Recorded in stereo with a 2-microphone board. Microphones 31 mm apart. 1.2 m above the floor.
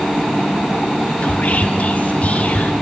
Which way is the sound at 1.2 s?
50° left (ahead or behind).